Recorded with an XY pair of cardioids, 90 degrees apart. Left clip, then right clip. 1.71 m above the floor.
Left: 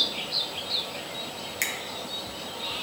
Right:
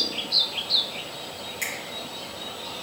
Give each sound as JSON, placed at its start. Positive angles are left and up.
{"t": 1.6, "sound": "a finger snap", "azimuth_deg": 60, "distance_m": 1.0}